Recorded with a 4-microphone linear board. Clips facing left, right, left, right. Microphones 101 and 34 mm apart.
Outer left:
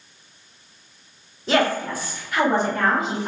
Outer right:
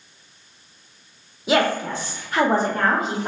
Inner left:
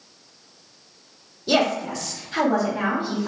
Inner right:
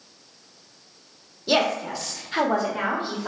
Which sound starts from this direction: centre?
A woman speaking, at 1.5 s.